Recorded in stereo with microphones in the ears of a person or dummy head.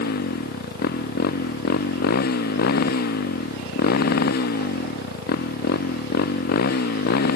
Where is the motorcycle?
60° left (ahead or behind).